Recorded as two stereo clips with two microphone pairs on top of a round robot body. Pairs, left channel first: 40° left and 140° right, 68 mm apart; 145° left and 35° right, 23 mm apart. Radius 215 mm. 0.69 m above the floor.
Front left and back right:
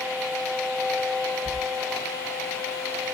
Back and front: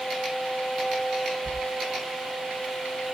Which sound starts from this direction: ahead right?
A sliding door, at 1.4 s.